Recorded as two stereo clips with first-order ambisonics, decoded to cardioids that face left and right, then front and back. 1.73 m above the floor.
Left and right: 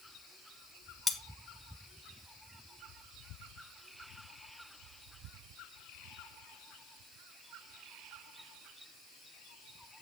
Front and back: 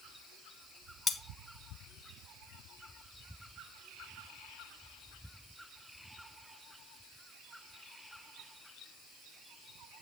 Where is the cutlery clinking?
40° left, 0.8 m.